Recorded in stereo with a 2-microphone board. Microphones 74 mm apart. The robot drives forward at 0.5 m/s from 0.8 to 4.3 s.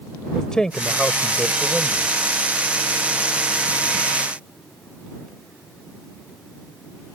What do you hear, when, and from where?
0.3 s a man speaking: 10° left (ahead or behind)